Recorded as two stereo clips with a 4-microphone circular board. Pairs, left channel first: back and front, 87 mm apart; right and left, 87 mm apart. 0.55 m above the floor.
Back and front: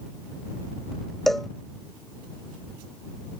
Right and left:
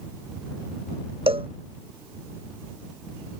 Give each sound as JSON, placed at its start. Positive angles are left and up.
{"t": 1.3, "sound": "a cowbell", "azimuth_deg": 90}